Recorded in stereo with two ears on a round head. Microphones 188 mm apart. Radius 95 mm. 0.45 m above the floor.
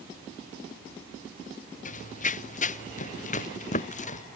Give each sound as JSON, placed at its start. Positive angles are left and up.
{"t": 1.9, "sound": "running footsteps", "side_deg": 40}